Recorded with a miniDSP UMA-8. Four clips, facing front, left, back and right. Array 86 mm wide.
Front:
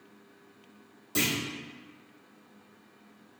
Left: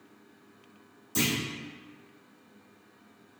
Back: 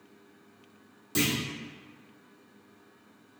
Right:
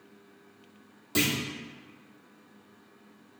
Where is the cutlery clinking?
No cutlery clinking in this recording.